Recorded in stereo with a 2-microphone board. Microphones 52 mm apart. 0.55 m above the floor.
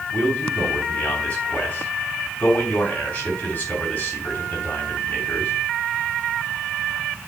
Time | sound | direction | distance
0.1 | a man speaking | 30° left (ahead or behind) | 3 m